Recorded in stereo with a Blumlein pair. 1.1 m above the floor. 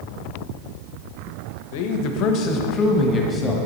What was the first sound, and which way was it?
A man speaking, 50° left.